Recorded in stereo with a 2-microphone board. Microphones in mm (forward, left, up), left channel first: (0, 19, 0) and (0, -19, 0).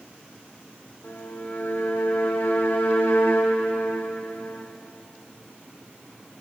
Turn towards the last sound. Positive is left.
turn(degrees=80)